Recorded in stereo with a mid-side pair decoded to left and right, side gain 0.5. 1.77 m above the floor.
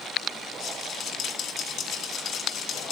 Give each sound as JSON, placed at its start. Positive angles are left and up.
{"t": 0.6, "sound": "a rattle", "azimuth_deg": 65, "distance_m": 2.0}